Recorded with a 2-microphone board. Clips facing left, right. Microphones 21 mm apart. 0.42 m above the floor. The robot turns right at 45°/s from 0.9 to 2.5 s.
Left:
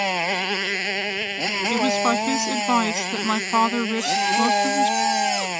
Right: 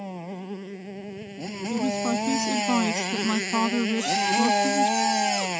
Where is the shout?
20° left (ahead or behind).